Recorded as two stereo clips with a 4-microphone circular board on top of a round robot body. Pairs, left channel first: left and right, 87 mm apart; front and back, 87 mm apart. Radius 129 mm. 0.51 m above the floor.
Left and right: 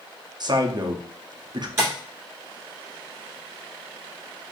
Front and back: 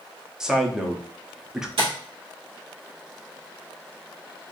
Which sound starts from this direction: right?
A man speaking, at 0.4 s.